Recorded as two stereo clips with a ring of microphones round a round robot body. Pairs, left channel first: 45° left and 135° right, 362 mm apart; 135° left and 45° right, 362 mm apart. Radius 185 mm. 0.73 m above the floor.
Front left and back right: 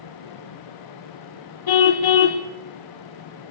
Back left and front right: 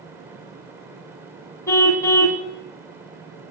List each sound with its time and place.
1.7 s a car horn: 50° left, 2 m